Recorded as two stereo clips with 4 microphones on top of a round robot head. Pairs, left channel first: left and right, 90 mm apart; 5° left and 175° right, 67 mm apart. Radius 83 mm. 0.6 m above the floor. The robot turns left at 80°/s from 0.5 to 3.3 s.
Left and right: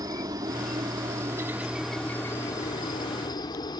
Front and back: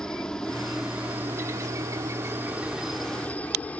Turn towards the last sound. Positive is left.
turn(degrees=70)